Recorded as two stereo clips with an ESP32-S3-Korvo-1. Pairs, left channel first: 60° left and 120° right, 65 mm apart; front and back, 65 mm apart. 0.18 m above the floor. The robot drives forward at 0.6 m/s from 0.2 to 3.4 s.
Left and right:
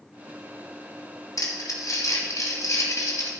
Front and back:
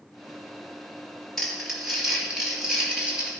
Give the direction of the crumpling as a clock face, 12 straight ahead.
9 o'clock.